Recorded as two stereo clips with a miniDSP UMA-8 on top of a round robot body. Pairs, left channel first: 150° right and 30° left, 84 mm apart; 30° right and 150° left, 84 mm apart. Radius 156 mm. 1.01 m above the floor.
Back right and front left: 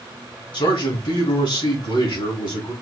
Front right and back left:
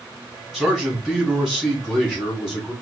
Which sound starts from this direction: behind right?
A man speaking, at 0.5 s.